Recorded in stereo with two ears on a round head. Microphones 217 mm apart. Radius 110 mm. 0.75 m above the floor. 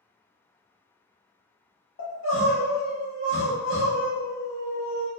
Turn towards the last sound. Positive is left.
turn(degrees=50)  # may be behind; listen again after turning